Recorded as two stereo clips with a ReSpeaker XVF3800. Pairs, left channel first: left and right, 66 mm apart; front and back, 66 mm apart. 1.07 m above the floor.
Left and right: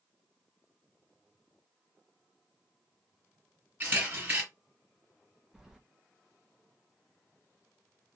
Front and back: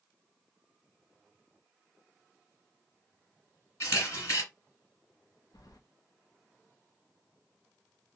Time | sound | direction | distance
3.8 | a camera shutter | 30° right | 2 m
5.5 | keys jangling | 10° right | 0.6 m